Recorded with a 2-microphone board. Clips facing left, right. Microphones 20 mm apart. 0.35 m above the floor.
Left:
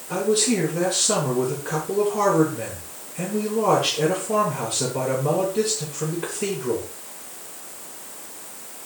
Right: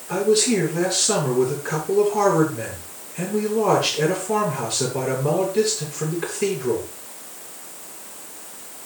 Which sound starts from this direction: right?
A man speaking, at 0.1 s.